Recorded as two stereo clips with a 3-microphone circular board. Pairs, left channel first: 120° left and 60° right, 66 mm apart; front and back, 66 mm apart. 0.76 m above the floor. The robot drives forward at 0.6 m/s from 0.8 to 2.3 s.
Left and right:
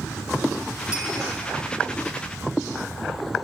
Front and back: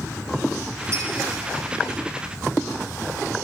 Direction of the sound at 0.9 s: 135° right.